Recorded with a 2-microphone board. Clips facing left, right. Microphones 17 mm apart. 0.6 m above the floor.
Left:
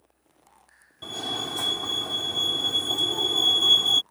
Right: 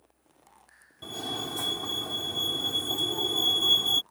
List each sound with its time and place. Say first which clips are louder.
1.0 s a fire alarm: left 4 dB; 20° left (ahead or behind)